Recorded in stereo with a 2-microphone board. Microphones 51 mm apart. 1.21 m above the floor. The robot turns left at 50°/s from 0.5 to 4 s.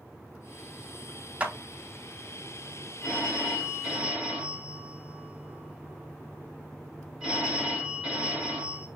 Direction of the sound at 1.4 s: 25° right (ahead or behind).